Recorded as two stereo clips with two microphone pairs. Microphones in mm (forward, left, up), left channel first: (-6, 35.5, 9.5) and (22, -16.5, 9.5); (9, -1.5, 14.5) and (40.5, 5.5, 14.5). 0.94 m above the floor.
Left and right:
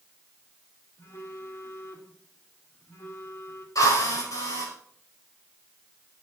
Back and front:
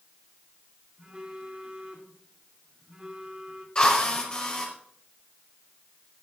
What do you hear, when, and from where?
1.0 s a phone buzzing: 75° left, 3 m
3.8 s a drill: 130° left, 5.5 m